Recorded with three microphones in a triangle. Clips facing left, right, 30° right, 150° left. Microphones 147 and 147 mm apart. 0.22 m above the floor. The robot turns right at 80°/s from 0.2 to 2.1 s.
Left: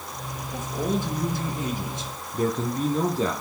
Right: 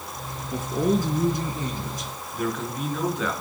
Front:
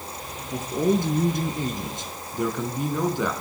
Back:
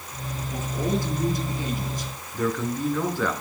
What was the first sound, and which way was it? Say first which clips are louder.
A man speaking: right 4 dB, front 5 dB; 85° right.